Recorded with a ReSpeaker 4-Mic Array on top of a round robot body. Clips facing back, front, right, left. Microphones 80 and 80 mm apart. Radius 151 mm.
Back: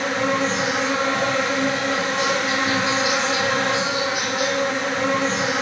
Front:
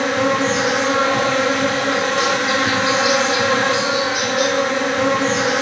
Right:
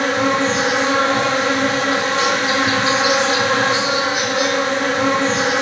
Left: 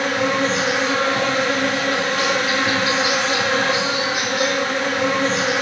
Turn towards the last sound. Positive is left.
turn(degrees=-25)